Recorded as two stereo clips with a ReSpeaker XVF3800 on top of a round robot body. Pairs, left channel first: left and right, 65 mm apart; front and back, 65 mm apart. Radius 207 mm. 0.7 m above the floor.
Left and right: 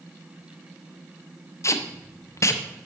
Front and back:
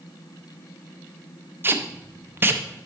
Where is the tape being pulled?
125° left, 0.6 m.